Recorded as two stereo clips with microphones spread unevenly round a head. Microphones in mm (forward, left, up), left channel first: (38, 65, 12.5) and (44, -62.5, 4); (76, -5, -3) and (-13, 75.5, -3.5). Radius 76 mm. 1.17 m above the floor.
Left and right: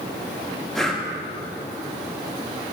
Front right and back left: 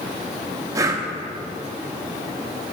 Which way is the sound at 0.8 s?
170° left.